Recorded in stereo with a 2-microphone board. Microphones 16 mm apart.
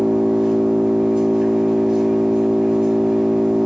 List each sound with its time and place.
0.0 s an engine running: 75° right (ahead or behind), 3 m